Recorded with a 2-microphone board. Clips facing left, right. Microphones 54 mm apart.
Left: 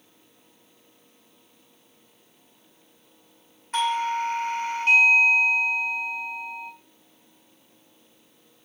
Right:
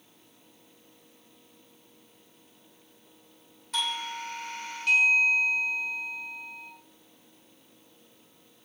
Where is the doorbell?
35° left (ahead or behind), 1.5 m.